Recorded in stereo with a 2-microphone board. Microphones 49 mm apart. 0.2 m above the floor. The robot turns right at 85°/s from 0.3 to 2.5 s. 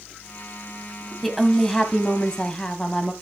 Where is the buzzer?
No buzzer in this recording.